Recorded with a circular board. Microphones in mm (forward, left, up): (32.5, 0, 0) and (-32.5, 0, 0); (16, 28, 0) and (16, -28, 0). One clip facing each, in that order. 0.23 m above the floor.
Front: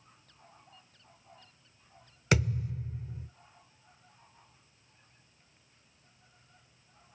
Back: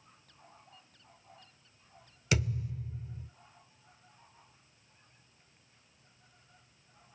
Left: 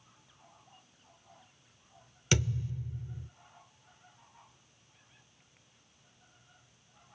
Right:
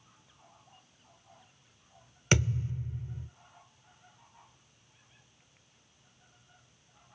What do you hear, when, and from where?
2.3 s a thud: 35° right, 0.7 m